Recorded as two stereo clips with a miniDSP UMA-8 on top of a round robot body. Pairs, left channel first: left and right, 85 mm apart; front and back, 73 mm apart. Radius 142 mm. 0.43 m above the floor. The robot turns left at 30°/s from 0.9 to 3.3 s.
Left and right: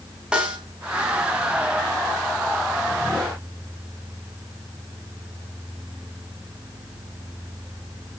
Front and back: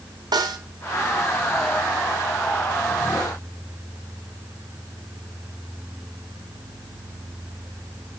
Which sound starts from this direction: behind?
A snare drum, at 0.3 s.